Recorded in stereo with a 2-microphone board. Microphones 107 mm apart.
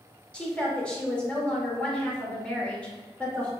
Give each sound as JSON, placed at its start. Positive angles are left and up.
{"t": 0.3, "sound": "a woman speaking", "side_deg": 10, "distance_m": 1.0}